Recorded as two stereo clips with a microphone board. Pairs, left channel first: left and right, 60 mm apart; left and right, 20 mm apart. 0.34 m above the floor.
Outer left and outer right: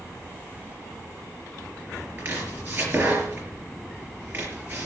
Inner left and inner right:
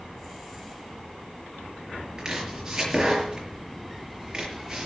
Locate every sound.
2.2 s chopping: 30° right (ahead or behind), 5 m